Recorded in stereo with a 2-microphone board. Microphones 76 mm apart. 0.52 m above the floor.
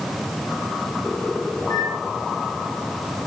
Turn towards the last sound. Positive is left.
turn(degrees=45)  # may be behind; listen again after turning